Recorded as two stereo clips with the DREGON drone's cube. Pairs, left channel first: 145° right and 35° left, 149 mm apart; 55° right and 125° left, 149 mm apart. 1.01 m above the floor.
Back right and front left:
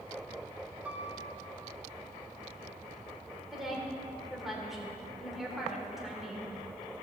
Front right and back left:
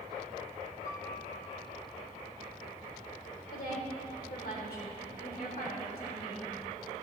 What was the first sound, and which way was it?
A piano, 45° right.